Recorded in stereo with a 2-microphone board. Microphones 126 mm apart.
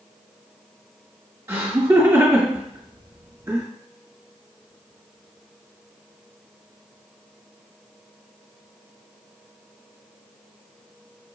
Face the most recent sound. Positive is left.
turn(degrees=-20)  # may be behind; listen again after turning